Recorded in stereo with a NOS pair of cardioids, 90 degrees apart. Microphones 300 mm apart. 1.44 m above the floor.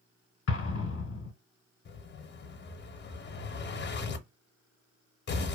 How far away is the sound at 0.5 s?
About 0.9 m.